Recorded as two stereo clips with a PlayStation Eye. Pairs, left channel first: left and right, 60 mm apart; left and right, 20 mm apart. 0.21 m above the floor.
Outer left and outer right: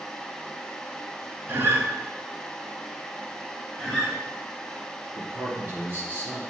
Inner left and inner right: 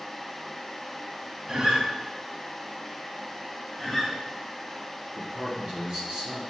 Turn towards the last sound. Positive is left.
turn(degrees=-35)  # may be behind; listen again after turning